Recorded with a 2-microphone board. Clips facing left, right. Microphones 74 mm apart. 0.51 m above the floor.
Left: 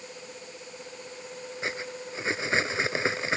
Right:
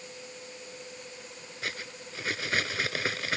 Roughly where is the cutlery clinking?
Left.